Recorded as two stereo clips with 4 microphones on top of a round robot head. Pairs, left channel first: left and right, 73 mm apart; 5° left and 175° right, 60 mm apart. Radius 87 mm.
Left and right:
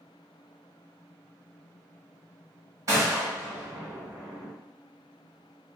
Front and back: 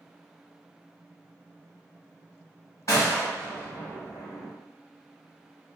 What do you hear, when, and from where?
2.9 s a gunshot: 55° right, 0.8 m